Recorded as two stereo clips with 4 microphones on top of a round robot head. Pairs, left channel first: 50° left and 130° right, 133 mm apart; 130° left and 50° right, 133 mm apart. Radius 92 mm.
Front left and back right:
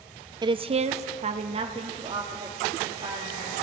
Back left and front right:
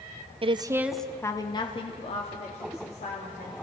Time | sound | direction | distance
0.4 | a woman speaking | 80° right | 0.7 m